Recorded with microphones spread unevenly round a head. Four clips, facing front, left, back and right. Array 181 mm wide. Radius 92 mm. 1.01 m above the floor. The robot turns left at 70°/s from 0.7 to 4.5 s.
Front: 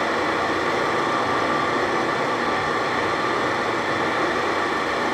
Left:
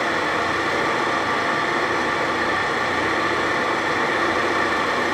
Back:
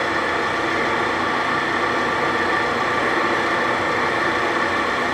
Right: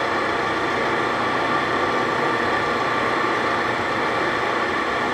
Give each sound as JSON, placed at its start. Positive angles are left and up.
{"t": 0.0, "sound": "an engine running", "azimuth_deg": 30, "distance_m": 1.9}